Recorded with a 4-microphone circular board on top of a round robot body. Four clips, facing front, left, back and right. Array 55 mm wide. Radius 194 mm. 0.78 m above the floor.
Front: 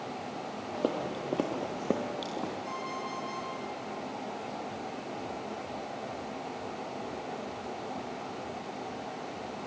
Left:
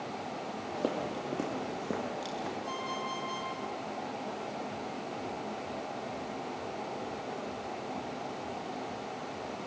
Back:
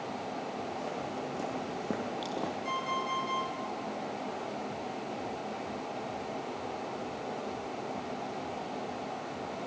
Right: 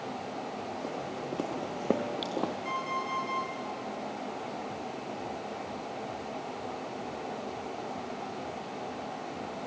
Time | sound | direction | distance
0.7 | footsteps | 25° left | 1.4 m
2.6 | an alarm clock | 120° right | 9 m